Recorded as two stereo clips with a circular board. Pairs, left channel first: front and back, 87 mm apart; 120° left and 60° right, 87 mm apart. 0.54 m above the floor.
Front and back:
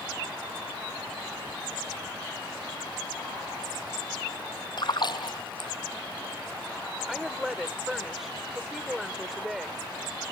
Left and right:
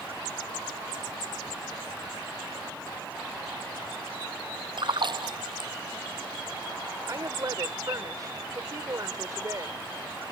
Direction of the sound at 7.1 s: 95° right.